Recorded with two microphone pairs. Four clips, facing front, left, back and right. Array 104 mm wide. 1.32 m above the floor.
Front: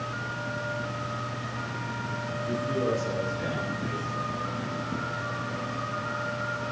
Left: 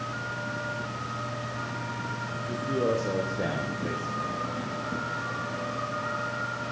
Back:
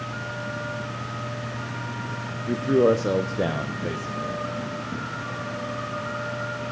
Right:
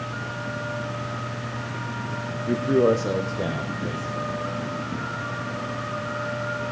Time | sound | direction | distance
2.5 | a man speaking | 120° right | 0.7 m